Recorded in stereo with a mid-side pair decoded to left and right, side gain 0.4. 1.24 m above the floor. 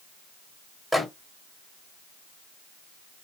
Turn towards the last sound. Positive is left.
turn(degrees=5)